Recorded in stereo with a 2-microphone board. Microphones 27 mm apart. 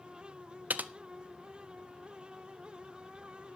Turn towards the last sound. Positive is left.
turn(degrees=-85)